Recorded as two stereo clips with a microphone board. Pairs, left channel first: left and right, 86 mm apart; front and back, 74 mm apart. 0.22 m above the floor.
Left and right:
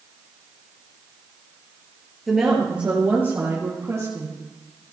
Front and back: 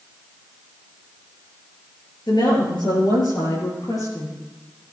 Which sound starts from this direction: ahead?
A woman speaking, at 2.3 s.